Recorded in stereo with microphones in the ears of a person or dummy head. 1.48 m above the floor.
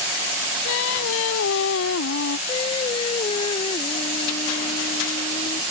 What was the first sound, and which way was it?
Singing, 75° left (ahead or behind).